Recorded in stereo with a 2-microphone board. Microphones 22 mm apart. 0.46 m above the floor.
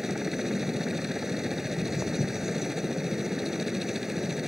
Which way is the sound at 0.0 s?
15° right (ahead or behind).